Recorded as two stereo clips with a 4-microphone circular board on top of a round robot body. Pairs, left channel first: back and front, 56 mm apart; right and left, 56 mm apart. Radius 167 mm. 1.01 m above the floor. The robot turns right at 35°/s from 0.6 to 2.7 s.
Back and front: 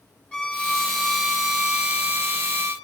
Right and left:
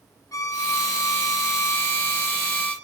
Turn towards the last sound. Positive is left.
turn(degrees=-35)